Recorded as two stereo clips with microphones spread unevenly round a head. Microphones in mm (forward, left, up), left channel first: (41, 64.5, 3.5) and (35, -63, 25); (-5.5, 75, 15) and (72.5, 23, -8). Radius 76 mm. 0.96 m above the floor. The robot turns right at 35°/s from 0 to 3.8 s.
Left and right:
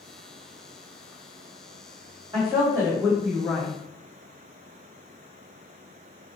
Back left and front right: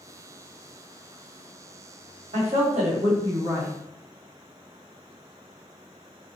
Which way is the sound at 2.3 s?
25° right.